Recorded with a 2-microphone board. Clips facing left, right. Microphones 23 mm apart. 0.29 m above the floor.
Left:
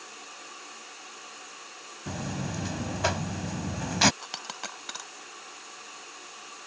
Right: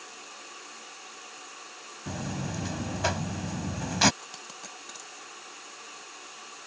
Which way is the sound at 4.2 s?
50° left (ahead or behind).